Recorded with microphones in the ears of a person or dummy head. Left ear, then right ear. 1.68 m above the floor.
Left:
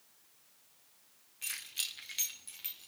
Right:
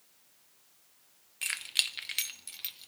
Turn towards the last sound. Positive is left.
turn(degrees=-25)  # may be behind; listen again after turning